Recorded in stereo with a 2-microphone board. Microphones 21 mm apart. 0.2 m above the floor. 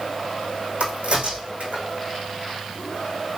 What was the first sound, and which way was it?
A crack, 65° right (ahead or behind).